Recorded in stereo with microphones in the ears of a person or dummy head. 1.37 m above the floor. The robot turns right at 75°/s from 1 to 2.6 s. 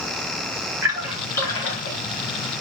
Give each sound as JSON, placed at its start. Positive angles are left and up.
{"t": 0.8, "sound": "a splash", "side_deg": -10, "distance_m": 0.9}